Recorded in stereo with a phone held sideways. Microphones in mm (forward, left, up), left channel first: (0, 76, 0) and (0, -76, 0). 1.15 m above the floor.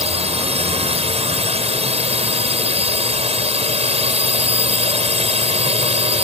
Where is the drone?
45° right (ahead or behind).